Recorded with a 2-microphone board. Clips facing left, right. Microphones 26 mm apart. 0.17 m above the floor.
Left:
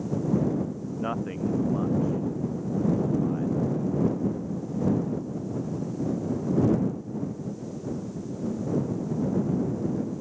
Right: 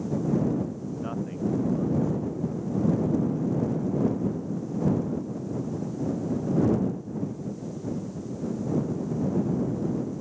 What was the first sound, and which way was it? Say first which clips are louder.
A man speaking: left 3 dB; 30° left (ahead or behind).